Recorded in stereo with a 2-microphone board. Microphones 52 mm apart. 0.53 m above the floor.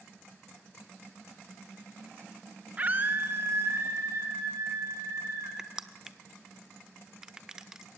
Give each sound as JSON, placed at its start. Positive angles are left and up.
{"t": 2.8, "sound": "a scream", "side_deg": -30, "distance_m": 0.7}
{"t": 5.6, "sound": "crushing", "side_deg": -10, "distance_m": 0.9}